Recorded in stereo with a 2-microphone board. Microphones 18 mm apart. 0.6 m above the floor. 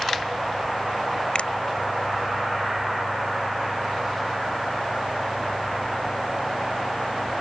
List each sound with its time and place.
1.4 s a finger snap: 80° left